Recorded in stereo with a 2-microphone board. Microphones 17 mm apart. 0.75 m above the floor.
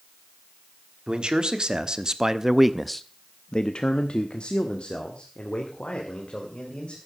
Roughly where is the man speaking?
Right.